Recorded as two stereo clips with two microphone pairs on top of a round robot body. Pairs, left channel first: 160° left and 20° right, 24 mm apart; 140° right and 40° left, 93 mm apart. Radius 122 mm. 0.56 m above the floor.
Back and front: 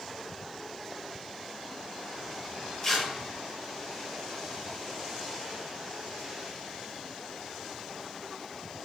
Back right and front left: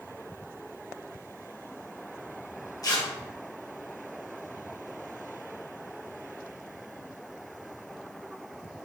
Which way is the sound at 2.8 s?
125° right.